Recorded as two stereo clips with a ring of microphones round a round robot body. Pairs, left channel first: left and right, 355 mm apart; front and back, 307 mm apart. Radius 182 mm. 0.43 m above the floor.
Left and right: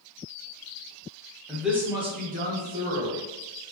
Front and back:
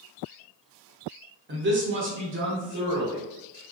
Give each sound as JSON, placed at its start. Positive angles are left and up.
{"t": 1.5, "sound": "a man speaking", "azimuth_deg": 175, "distance_m": 1.1}